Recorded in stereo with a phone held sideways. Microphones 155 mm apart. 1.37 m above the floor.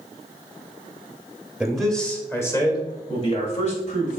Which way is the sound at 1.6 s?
5° right (ahead or behind).